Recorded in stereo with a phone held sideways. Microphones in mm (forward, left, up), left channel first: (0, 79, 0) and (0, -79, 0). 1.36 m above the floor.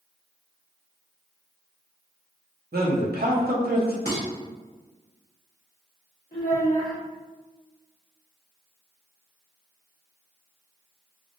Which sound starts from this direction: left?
A child speaking, at 6.3 s.